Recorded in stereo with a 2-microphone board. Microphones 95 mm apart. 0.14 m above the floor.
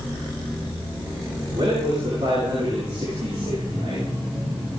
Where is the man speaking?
70° right (ahead or behind), 9.5 m; by 4.0 s 80° right, 12 m.